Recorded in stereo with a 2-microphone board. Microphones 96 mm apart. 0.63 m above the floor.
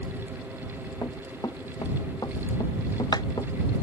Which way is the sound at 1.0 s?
35° left (ahead or behind).